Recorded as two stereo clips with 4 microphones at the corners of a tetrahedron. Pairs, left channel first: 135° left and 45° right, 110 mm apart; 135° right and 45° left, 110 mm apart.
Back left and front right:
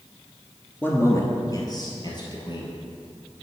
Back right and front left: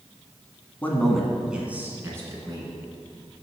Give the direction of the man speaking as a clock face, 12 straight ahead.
6 o'clock.